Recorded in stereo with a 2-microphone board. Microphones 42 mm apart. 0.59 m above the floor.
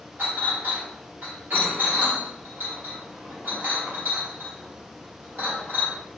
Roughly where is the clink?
Right.